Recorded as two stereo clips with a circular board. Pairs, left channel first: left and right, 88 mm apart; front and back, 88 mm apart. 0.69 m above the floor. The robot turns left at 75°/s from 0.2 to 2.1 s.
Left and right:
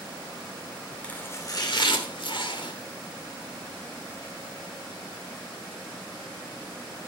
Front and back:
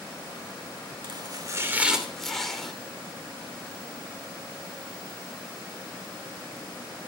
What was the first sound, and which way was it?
Chopping, 165° left.